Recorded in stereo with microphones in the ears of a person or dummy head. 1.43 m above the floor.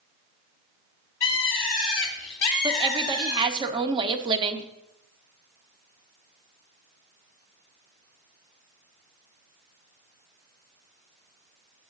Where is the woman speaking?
30° right (ahead or behind), 0.7 m.